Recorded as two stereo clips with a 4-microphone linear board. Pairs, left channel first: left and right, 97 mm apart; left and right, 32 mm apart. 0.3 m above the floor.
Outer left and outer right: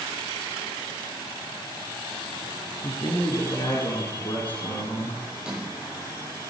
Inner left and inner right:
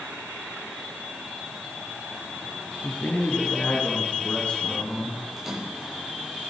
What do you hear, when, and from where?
2.8 s a man speaking: 45° left (ahead or behind), 4 m; by 5.2 s 70° left (ahead or behind), 3.5 m
5.4 s a splash: 10° right (ahead or behind), 6 m